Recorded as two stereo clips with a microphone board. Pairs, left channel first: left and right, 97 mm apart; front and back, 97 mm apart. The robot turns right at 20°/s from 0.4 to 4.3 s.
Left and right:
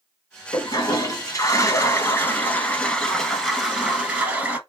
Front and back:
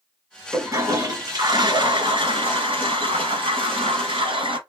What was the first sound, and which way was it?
A toilet flushing, 125° left.